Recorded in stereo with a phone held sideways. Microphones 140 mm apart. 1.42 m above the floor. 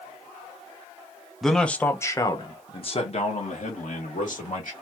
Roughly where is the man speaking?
Centre.